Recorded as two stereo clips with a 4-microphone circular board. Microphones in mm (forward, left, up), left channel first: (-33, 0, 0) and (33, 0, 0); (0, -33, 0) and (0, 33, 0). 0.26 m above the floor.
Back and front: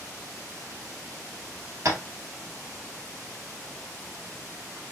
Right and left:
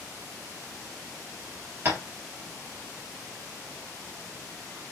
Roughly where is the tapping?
Ahead left.